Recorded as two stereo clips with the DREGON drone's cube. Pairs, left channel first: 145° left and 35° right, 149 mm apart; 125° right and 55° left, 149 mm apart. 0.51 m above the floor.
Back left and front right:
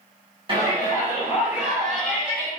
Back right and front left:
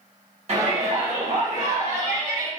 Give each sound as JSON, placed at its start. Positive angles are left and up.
{"t": 0.5, "sound": "a shout", "azimuth_deg": 15, "distance_m": 1.9}